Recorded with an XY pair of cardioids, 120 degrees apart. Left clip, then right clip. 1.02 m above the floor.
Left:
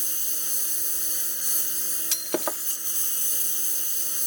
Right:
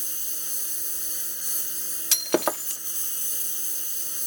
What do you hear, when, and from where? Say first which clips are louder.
0.0 s a lawn mower: left 3 dB; 15° left
2.1 s breaking glass: right 6 dB; 30° right